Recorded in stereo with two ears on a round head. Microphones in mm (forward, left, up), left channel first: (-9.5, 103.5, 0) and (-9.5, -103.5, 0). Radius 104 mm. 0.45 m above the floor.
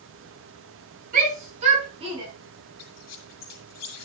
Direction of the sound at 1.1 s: 35° right (ahead or behind).